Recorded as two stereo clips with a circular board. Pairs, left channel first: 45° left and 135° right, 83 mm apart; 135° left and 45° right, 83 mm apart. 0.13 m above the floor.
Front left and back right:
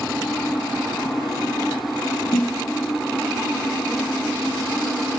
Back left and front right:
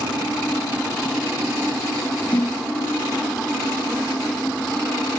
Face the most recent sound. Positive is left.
turn(degrees=65)